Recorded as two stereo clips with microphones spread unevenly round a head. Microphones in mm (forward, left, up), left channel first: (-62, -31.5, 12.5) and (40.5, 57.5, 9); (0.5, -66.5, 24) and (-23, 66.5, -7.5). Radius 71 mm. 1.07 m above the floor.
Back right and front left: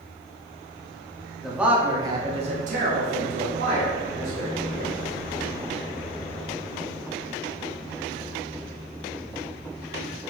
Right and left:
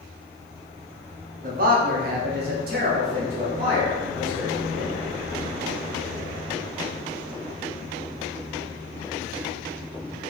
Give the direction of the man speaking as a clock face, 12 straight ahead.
8 o'clock.